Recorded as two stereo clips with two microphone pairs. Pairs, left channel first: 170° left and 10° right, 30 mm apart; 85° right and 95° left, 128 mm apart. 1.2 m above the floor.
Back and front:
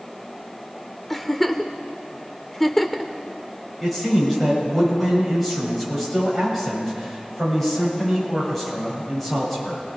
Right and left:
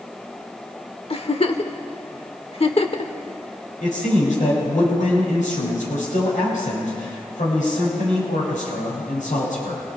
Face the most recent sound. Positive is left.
turn(degrees=-105)